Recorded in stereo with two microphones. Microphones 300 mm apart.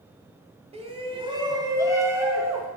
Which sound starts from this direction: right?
A shout, at 0.7 s.